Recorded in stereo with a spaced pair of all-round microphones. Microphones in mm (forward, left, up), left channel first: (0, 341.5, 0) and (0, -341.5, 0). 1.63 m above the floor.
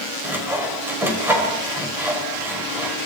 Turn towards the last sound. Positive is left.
turn(degrees=-5)  # may be behind; listen again after turning